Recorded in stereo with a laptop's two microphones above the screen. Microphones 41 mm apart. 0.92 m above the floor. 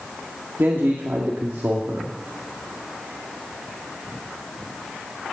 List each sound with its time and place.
0.6 s a man speaking: 70° right (ahead or behind), 2 m